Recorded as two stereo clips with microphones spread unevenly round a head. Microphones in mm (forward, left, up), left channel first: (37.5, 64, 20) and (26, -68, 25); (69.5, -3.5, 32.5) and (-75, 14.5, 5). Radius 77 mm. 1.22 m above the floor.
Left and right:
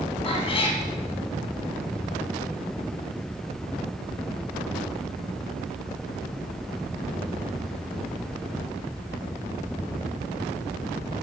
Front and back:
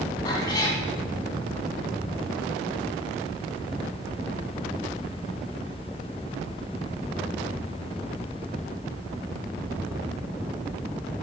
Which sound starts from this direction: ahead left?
A cat meowing, at 0.2 s.